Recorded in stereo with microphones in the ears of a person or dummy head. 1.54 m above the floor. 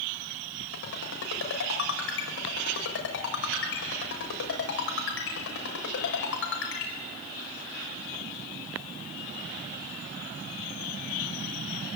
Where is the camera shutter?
I don't hear a camera shutter.